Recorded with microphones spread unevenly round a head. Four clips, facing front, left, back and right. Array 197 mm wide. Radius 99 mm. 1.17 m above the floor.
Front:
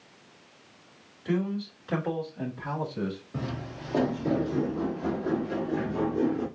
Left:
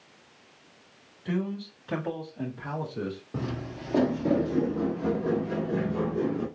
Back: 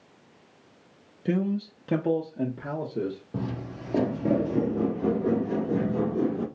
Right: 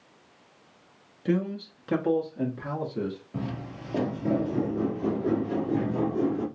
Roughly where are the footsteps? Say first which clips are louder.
Left 1 dB, back 2 dB; behind left.